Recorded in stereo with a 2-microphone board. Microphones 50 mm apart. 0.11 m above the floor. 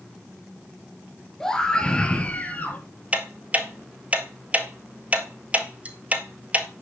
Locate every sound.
1.4 s a scream: 10° left (ahead or behind), 2.5 m; by 2.8 s 30° left (ahead or behind), 3 m
3.1 s ticking: 30° right (ahead or behind), 1.2 m